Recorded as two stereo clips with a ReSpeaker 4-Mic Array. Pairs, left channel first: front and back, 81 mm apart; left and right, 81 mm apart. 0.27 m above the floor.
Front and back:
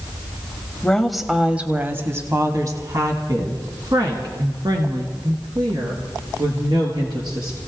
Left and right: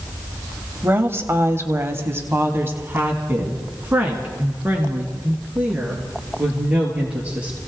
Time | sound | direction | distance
0.8 | a woman speaking | 65° right | 1.1 m